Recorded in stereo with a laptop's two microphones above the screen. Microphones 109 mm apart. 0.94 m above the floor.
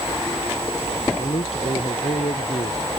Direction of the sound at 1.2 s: 65° left (ahead or behind).